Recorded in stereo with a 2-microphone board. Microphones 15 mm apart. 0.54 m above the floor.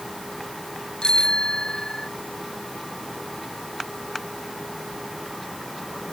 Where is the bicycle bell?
85° left.